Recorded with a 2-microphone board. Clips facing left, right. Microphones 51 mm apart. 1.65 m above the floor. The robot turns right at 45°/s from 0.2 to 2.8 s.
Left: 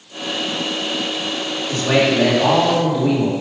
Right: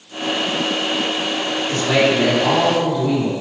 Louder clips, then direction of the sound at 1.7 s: Left 1 dB; 30° left.